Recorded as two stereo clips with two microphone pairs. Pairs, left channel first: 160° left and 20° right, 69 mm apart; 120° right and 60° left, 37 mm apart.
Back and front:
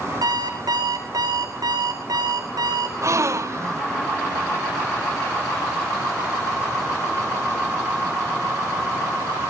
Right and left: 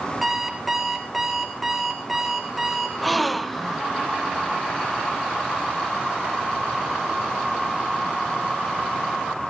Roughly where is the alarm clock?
Ahead right.